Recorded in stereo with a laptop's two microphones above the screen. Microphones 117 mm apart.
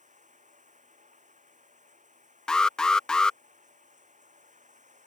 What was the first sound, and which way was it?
Running water, 90° right.